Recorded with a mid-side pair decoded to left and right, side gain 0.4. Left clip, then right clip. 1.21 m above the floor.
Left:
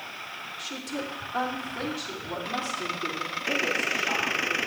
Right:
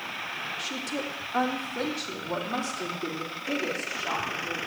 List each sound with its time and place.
0.6 s a woman speaking: 25° right, 1.7 m; by 4.6 s 50° right, 3.5 m